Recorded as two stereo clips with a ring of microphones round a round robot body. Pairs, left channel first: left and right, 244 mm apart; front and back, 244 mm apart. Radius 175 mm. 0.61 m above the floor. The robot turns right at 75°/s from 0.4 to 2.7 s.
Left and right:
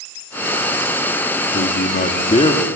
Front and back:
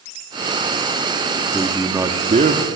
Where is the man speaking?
75° left, 1.5 m; by 2.7 s 160° left, 1.5 m.